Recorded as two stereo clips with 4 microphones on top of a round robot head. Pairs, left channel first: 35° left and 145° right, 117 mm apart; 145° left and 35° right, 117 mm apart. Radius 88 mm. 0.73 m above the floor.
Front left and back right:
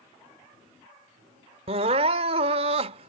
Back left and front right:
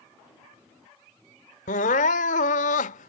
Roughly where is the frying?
No frying in this recording.